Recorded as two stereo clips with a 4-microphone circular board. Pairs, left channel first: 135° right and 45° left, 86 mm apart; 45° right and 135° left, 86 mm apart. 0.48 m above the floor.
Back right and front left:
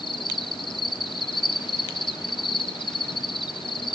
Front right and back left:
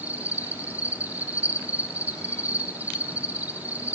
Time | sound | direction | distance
0.0 | an insect | 155° right | 0.8 m